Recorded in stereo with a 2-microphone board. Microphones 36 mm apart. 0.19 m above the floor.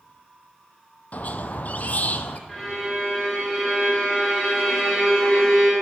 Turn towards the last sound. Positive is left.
turn(degrees=10)  # may be behind; listen again after turning